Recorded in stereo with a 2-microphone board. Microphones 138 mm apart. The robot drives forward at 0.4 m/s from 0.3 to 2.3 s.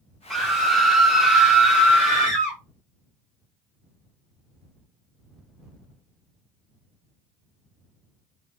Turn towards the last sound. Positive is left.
turn(degrees=0)  # may be behind; listen again after turning